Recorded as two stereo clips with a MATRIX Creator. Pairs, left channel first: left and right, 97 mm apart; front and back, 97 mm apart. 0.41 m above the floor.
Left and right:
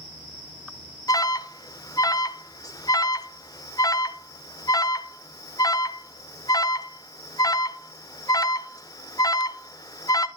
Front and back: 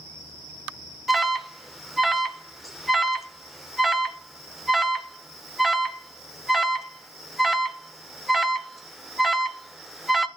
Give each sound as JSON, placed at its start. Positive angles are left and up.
{"t": 1.1, "sound": "an alarm", "azimuth_deg": 90, "distance_m": 0.6}